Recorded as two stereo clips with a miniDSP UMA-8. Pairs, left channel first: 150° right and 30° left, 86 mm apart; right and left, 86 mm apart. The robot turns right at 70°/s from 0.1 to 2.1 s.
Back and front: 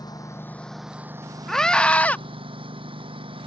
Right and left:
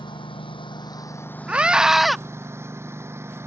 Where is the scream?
135° left; by 2.2 s straight behind.